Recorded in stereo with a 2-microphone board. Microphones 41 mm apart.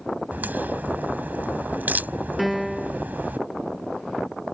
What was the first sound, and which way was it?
A crack, 50° right (ahead or behind).